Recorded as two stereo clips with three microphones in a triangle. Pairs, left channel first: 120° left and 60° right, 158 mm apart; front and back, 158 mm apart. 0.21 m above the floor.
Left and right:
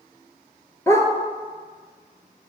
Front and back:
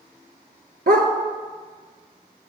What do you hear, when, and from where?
0.9 s a dog barking: 170° right, 0.9 m